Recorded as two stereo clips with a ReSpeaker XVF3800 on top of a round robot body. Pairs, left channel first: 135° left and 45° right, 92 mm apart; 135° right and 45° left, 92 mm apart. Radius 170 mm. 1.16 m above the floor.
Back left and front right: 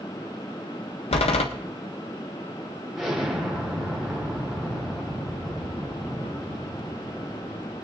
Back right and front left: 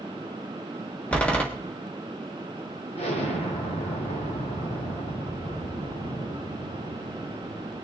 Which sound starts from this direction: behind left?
A door slam, at 1.1 s.